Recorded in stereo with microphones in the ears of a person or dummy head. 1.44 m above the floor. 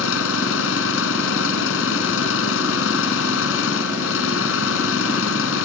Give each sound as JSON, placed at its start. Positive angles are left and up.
{"t": 0.0, "sound": "an engine running", "side_deg": 80}